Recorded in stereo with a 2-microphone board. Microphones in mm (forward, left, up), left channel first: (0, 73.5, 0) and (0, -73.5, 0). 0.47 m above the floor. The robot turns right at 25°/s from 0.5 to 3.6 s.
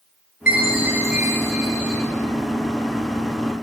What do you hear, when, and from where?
0.5 s a chime: 80° left, 6 m; by 2.0 s 115° left, 6 m